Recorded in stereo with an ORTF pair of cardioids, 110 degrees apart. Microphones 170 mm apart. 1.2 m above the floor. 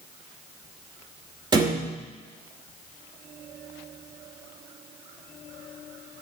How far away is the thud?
About 1.9 m.